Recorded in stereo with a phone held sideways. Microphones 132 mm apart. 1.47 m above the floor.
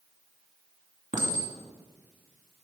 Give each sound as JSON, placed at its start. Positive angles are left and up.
{"t": 1.1, "sound": "a clink", "side_deg": -85, "distance_m": 2.0}